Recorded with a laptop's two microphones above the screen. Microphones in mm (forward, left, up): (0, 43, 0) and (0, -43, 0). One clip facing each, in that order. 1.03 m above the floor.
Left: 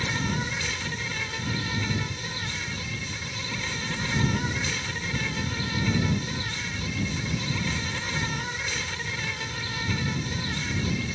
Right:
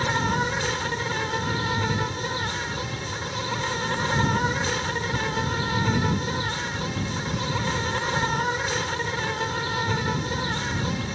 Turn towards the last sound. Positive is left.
turn(degrees=-50)  # may be behind; listen again after turning